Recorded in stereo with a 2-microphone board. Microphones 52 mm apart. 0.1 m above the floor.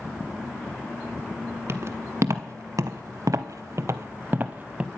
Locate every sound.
1.7 s footsteps: 50° right (ahead or behind), 1.2 m; by 4.9 s 15° right (ahead or behind), 0.8 m